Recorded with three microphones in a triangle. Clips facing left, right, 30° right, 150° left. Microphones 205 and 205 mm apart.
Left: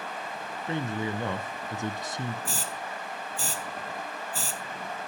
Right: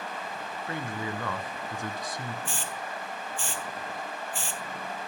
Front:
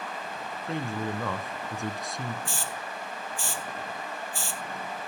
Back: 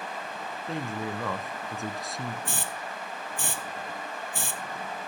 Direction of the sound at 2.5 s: 135° left.